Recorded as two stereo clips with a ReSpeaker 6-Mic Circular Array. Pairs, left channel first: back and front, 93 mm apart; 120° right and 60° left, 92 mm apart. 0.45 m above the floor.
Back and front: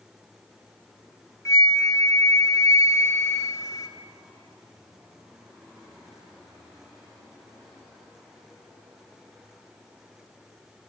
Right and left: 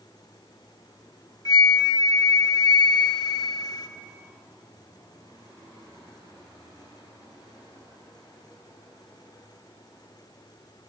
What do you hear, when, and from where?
1.4 s a flute: 140° right, 0.9 m